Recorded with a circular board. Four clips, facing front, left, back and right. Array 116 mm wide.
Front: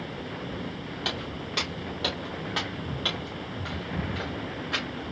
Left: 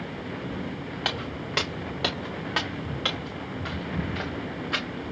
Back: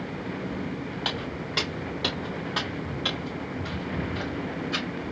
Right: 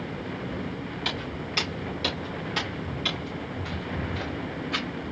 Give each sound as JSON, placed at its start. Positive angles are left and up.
{"t": 1.1, "sound": "footsteps", "azimuth_deg": 100, "distance_m": 3.5}